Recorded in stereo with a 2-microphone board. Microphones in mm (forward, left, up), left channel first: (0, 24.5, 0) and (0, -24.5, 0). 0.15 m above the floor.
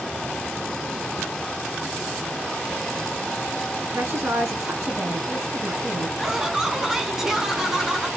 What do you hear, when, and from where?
3.8 s a woman speaking: 55° right (ahead or behind), 1.7 m
6.2 s laughter: 10° right (ahead or behind), 1.0 m